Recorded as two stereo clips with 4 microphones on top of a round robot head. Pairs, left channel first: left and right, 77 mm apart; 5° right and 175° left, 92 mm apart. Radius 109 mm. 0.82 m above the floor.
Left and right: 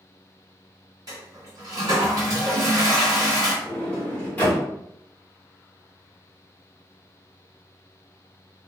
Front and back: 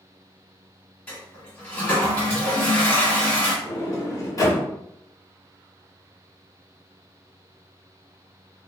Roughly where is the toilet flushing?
Right.